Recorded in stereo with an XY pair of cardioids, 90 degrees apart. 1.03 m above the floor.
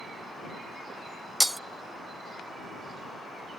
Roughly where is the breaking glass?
Ahead.